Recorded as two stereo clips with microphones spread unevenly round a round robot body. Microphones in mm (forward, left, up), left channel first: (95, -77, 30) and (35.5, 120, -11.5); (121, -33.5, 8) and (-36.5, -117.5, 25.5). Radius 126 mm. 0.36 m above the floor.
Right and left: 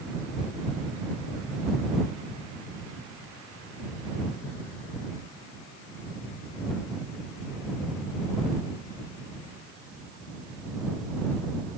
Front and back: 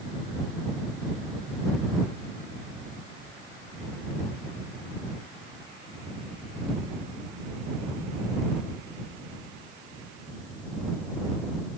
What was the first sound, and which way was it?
Only background noise.